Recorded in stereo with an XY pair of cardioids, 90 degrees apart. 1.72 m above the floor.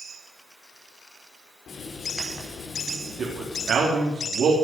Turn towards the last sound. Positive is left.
turn(degrees=-70)